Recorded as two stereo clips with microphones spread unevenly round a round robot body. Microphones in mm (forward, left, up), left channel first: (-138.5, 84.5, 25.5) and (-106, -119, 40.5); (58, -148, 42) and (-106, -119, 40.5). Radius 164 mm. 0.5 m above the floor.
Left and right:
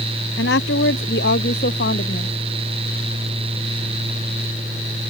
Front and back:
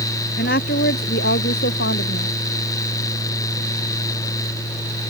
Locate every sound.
0.4 s a woman speaking: 45° left; by 2.3 s 35° left